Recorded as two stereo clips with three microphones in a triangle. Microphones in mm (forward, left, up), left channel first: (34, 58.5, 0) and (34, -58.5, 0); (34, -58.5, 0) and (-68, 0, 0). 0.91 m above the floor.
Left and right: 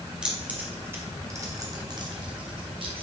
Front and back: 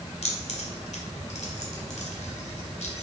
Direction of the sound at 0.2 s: 5° right.